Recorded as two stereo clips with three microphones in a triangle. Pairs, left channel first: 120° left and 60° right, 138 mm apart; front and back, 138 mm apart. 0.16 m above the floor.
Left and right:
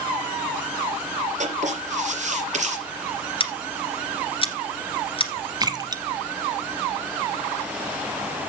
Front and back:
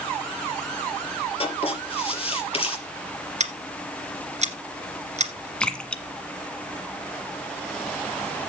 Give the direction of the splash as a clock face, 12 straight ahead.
3 o'clock.